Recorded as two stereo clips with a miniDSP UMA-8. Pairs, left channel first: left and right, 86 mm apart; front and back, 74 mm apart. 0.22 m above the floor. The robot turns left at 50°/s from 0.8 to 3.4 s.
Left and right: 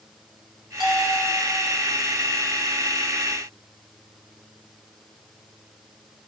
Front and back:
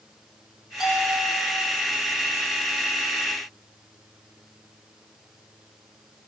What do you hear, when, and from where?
0.8 s a bell: 95° right, 7 m; by 1.4 s 125° right, 7 m